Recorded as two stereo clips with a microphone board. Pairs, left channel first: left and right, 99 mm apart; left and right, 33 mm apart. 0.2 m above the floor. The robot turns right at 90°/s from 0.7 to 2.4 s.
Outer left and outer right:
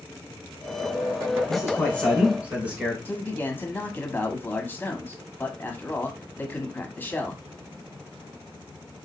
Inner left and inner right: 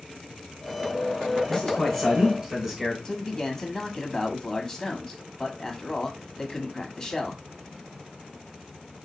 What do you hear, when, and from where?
1.5 s a man speaking: 120° left, 2 m; by 3.0 s 160° right, 2 m
3.0 s a man speaking: 20° left (ahead or behind), 1.0 m